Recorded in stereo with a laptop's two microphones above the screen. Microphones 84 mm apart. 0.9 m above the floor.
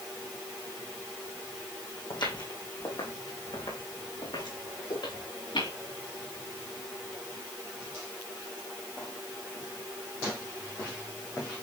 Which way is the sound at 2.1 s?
70° left (ahead or behind).